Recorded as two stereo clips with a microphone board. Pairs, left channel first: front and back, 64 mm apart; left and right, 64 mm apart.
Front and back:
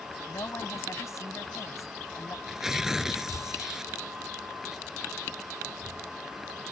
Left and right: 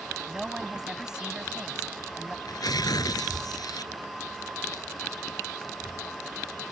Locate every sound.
0.2 s a woman speaking: 10° right
2.5 s tearing paper: 95° left